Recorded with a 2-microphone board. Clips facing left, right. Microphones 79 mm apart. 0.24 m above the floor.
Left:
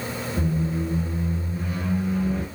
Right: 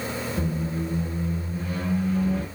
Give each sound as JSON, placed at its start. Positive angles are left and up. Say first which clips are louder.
{"t": 0.4, "sound": "a squeak", "louder": "left 5 dB", "side_deg": 20, "distance_m": 1.6}